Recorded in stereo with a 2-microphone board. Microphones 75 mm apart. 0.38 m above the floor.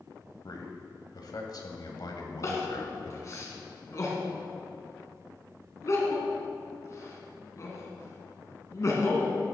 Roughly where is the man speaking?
Left.